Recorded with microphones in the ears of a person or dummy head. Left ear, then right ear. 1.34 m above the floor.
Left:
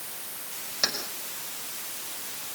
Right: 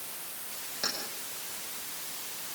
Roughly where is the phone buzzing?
No phone buzzing in this recording.